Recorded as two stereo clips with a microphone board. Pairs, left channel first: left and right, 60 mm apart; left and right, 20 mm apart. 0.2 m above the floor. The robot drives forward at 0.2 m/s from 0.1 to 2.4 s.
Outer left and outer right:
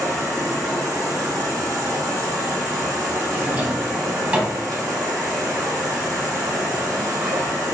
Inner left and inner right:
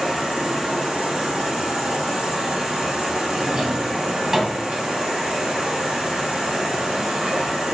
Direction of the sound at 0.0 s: 70° right (ahead or behind).